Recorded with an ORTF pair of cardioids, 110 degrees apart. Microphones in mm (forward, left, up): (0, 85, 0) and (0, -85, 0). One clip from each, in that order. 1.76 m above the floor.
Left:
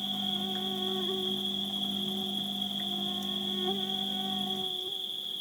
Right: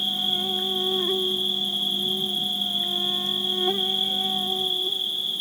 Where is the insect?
50° right.